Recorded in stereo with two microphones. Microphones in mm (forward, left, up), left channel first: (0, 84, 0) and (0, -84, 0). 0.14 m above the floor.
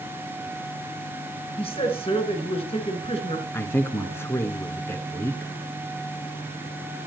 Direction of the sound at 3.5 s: 15° left (ahead or behind).